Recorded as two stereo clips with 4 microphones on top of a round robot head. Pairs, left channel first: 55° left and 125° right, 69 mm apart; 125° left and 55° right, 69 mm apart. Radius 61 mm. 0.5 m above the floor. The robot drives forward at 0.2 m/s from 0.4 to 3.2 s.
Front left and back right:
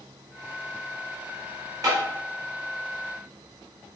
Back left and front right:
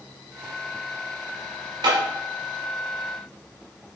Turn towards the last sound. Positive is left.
turn(degrees=-90)